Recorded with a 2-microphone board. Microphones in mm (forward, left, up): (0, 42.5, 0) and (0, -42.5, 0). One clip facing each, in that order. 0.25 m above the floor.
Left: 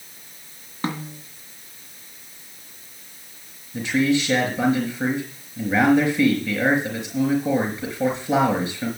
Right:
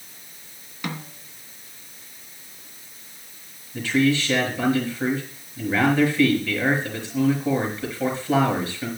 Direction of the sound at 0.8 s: 35° left (ahead or behind).